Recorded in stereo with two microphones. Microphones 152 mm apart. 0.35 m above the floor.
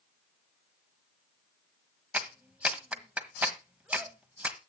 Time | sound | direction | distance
2.1 | a clap | 10° right (ahead or behind) | 1.5 m